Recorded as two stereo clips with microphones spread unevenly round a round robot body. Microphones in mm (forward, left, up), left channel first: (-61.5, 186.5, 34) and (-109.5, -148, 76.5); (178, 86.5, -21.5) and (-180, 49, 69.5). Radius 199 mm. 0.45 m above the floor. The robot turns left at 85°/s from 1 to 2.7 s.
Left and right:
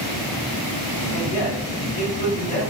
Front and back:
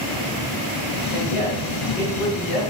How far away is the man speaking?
About 2.5 m.